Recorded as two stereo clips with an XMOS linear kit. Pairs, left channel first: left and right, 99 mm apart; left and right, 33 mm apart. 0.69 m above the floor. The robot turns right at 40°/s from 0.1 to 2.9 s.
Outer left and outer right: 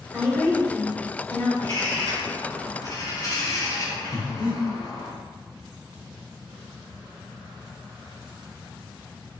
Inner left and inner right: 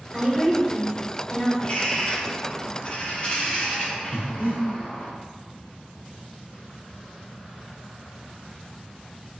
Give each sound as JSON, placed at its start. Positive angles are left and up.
{"t": 0.1, "sound": "a woman speaking", "azimuth_deg": -5, "distance_m": 1.6}
{"t": 1.6, "sound": "a bird", "azimuth_deg": 65, "distance_m": 0.9}
{"t": 4.1, "sound": "breathing", "side_deg": -70, "distance_m": 0.7}